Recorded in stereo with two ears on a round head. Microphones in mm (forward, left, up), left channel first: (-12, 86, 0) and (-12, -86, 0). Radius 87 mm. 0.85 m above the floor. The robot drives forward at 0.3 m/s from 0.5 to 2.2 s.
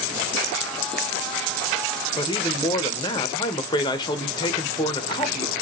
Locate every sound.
2.2 s a man speaking: 20° left (ahead or behind), 0.6 m